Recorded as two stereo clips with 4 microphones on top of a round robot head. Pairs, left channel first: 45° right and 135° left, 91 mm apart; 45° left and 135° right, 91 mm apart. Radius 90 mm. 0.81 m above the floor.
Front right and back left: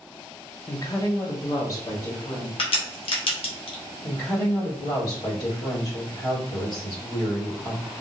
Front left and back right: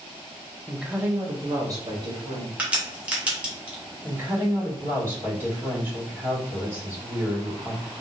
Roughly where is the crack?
Ahead right.